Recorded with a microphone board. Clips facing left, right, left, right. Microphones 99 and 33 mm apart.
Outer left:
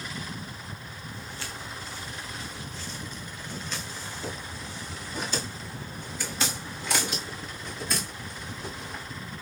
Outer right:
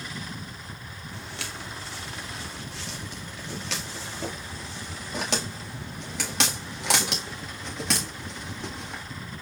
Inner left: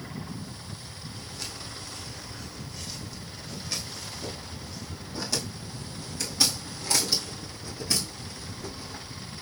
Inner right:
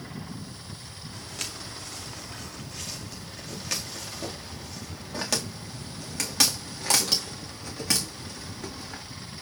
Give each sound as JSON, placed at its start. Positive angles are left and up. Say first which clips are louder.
{"t": 1.1, "sound": "footsteps", "louder": "outer right 2 dB, inner right 3 dB", "side_deg": -80, "distance_m": 4.5}